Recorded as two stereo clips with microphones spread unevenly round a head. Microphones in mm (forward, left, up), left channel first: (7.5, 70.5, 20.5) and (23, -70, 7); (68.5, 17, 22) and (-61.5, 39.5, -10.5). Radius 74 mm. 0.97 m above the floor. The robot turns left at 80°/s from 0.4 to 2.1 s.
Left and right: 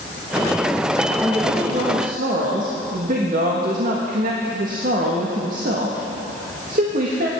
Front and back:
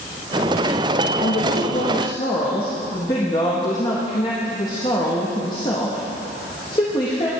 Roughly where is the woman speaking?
Ahead.